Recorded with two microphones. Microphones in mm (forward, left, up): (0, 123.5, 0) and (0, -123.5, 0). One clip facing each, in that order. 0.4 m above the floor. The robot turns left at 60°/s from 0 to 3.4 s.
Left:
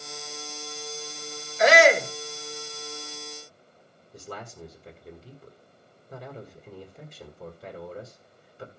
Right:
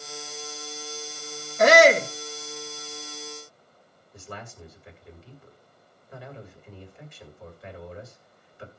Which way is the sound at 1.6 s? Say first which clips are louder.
Right 2 dB; 120° right.